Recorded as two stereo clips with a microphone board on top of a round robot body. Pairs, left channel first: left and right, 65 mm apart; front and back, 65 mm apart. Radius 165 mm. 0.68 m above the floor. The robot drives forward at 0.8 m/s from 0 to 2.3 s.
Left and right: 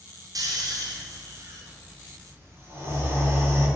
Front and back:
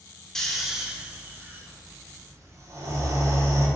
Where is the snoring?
80° right, 1.3 m; by 3.7 s 140° right, 1.9 m.